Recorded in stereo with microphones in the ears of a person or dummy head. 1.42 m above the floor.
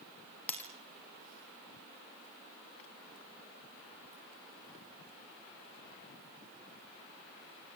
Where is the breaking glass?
10° left (ahead or behind), 3 m.